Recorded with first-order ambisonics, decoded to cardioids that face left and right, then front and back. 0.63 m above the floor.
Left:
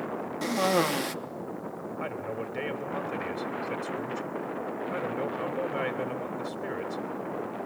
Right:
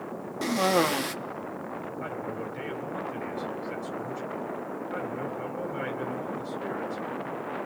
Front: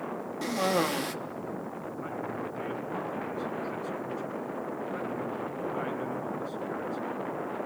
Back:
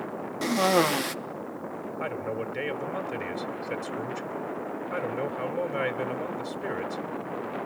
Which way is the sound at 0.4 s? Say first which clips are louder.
Right 2 dB, back 5 dB; 165° right.